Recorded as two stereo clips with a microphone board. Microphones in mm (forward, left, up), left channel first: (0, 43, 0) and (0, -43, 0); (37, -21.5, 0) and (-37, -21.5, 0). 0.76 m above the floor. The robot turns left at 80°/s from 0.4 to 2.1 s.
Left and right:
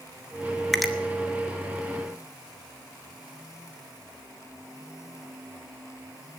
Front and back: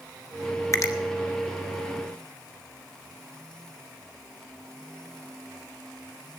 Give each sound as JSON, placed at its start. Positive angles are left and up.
{"t": 0.7, "sound": "a finger snap", "azimuth_deg": 5, "distance_m": 0.9}